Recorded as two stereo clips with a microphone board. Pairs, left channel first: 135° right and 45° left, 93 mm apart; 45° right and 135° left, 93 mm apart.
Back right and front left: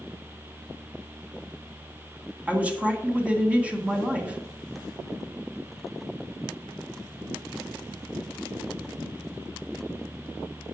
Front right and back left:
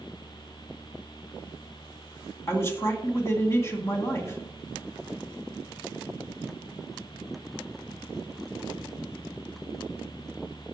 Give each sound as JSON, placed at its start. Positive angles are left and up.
{"t": 2.5, "sound": "a man speaking", "azimuth_deg": -20, "distance_m": 1.9}